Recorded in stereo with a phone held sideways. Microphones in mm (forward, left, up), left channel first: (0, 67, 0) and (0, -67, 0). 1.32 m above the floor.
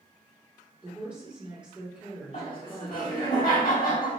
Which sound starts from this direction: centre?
A woman speaking, at 0.8 s.